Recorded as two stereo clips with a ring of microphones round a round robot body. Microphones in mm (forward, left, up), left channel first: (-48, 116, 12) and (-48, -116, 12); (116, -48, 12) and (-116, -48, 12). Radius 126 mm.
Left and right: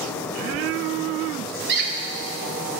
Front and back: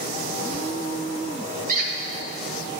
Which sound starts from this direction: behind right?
A squeak, at 1.7 s.